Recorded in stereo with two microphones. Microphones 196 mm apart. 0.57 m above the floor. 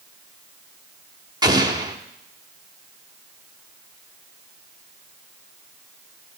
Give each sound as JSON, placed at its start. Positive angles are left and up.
{"t": 1.4, "sound": "an explosion", "side_deg": -20, "distance_m": 1.0}